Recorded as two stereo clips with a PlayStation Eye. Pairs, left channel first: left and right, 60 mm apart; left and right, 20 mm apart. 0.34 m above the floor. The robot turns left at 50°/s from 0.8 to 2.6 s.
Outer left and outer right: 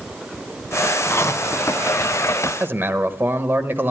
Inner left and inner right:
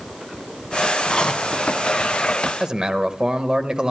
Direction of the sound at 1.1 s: 135° left.